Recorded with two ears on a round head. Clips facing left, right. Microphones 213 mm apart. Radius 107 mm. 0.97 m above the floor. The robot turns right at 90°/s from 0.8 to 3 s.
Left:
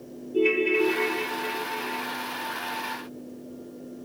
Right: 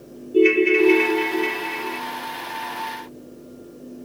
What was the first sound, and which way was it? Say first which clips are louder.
A ringtone: right 7 dB; 155° right.